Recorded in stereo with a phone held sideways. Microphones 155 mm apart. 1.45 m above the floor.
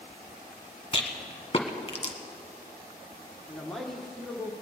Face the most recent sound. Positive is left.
turn(degrees=0)  # may be behind; listen again after turning